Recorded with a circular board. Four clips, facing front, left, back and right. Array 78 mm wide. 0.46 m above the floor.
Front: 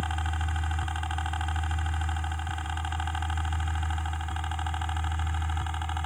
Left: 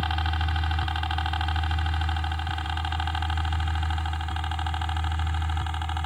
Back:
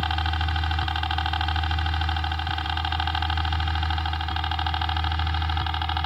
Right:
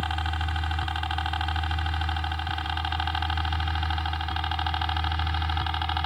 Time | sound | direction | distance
0.0 | a helicopter | 175° left | ?